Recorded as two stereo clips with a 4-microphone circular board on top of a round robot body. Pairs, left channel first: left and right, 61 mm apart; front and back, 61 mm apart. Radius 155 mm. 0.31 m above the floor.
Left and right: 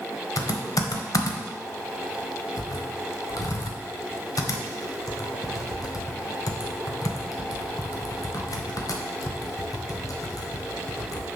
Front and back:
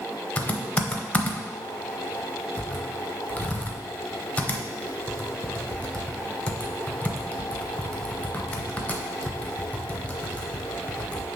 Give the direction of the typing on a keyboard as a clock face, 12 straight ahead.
10 o'clock.